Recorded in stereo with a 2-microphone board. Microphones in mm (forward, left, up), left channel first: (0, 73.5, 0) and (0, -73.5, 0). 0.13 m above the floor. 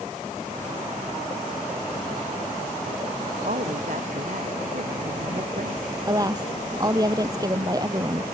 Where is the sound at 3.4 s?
65° right (ahead or behind).